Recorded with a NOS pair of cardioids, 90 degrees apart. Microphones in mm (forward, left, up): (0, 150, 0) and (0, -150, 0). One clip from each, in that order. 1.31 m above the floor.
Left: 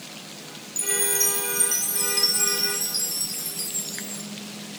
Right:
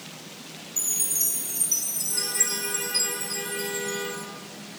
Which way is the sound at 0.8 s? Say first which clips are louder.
Left 3 dB; 45° left.